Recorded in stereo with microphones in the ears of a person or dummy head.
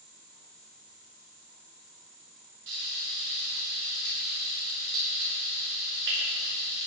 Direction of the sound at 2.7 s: 65° right (ahead or behind).